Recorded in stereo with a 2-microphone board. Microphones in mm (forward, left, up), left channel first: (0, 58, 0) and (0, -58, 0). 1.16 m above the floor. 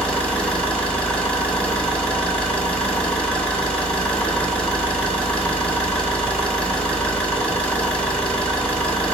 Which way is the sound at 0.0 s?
10° left (ahead or behind).